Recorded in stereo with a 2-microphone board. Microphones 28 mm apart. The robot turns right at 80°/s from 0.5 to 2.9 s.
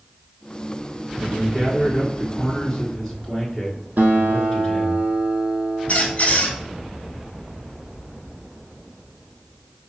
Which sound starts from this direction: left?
A squeak, at 5.9 s.